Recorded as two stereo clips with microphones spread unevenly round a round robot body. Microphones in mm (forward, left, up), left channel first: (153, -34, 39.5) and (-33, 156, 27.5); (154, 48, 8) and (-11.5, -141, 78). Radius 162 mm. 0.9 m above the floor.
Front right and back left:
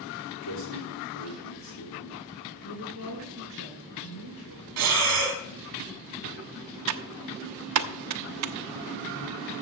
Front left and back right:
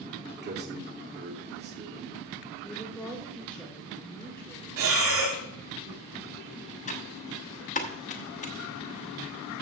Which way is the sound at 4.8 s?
Straight behind.